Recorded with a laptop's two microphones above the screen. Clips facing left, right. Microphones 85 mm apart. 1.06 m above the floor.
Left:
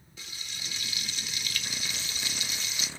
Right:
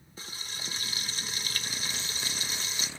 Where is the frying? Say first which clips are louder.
Right 2 dB; 35° right (ahead or behind), 0.8 m.